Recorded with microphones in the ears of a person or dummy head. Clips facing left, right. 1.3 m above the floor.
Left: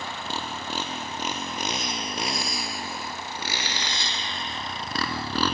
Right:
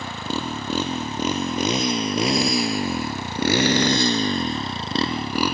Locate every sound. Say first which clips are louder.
0.0 s a motorcycle: right 6 dB; 65° right (ahead or behind); by 5.5 s 5° right (ahead or behind)